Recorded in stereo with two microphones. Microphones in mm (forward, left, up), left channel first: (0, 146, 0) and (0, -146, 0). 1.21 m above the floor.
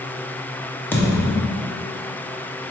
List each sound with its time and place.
0.9 s a thud: 5° left (ahead or behind), 0.7 m